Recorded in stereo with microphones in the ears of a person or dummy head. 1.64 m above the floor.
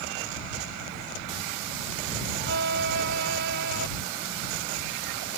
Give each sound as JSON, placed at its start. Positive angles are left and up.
{"t": 2.4, "sound": "a violin", "side_deg": -75}